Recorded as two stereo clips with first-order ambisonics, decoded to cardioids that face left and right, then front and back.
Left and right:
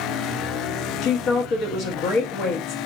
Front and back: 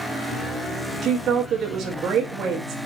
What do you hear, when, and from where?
1.0 s a woman speaking: 125° left, 1.2 m